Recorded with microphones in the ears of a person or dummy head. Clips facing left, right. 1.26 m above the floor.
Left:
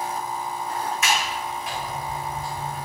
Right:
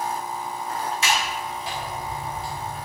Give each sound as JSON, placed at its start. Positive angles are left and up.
{"t": 1.0, "sound": "a sliding door", "side_deg": -25, "distance_m": 1.8}